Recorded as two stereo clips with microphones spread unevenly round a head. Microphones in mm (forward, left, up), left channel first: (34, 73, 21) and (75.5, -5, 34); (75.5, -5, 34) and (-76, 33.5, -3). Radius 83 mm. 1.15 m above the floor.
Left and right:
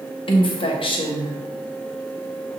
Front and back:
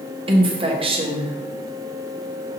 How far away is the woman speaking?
About 1.4 m.